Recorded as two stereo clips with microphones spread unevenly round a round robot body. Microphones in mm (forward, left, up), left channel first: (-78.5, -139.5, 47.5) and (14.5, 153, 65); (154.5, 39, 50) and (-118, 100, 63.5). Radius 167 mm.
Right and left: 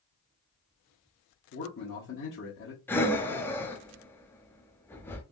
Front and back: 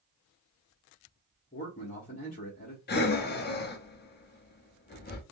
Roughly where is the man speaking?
Ahead right.